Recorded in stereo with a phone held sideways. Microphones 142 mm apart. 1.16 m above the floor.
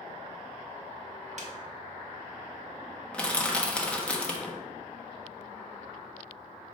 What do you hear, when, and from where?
1.4 s a snare drum: 60° right (ahead or behind), 1.0 m
3.1 s crushing: 10° left (ahead or behind), 1.1 m